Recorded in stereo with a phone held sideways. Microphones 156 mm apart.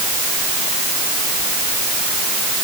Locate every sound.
Only background noise.